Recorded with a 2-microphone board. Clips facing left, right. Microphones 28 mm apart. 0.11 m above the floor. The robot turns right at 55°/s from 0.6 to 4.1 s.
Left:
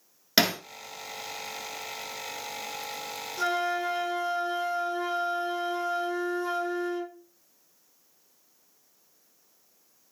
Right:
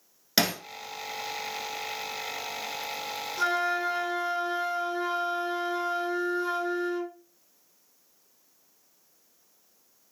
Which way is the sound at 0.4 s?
15° left (ahead or behind).